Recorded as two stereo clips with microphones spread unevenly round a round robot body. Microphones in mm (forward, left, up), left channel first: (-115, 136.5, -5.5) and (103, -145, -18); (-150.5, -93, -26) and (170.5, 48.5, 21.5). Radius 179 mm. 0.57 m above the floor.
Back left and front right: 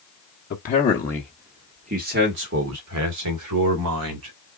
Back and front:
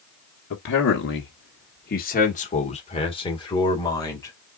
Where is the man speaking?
Straight behind, 1.2 m; by 4.3 s 80° right, 2.5 m.